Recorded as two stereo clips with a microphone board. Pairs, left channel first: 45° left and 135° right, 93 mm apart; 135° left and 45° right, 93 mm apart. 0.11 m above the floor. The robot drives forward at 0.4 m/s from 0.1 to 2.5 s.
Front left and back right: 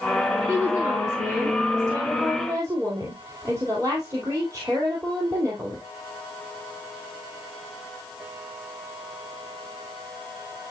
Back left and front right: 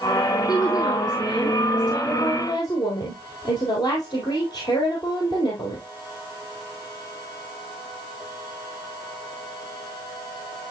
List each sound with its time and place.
0.5 s a woman speaking: 175° left, 1.8 m